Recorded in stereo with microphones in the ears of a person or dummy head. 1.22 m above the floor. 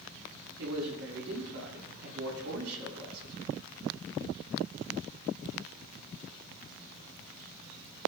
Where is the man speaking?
75° right (ahead or behind), 7 m.